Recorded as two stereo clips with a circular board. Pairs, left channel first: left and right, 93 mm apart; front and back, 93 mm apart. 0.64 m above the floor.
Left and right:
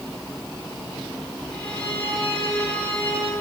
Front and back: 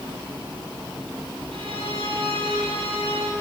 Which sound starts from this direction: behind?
A violin, at 1.5 s.